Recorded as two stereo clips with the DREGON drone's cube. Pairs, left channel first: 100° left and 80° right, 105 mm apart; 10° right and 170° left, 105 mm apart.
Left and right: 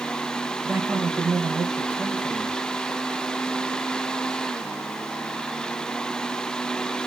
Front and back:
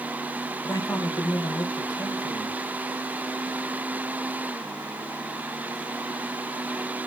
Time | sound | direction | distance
0.6 | a man speaking | 10° right | 0.9 m